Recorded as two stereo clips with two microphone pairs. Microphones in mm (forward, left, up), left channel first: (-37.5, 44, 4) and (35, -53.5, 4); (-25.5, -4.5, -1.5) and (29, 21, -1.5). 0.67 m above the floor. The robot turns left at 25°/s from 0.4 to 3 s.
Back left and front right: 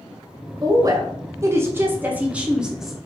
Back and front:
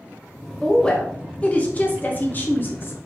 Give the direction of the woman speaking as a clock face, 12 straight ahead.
3 o'clock.